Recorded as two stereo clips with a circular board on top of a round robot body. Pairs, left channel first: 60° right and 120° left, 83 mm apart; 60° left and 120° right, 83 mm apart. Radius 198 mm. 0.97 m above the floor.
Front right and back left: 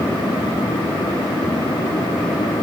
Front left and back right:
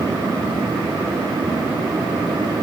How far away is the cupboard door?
No cupboard door in this recording.